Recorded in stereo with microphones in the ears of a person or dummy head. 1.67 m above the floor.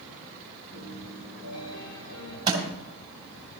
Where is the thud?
25° right (ahead or behind), 4 m.